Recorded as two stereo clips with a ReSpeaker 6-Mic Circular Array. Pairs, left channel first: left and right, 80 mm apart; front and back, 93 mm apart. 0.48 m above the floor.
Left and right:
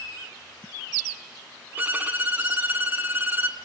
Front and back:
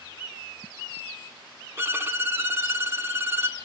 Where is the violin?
135° right, 1.0 m.